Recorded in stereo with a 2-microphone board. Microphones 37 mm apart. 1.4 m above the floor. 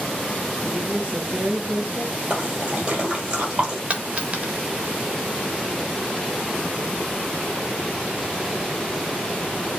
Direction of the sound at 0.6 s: 45° right (ahead or behind).